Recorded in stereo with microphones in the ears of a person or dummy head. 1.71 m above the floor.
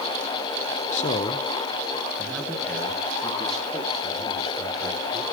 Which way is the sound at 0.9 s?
40° left (ahead or behind).